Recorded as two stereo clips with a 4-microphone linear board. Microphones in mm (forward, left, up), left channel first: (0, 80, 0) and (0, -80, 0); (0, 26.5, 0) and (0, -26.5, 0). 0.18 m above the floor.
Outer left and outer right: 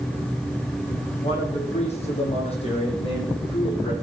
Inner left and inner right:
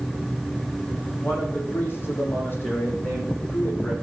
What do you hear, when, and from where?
1.2 s a man speaking: 45° left (ahead or behind), 9.5 m; by 3.9 s 35° left (ahead or behind), 9.5 m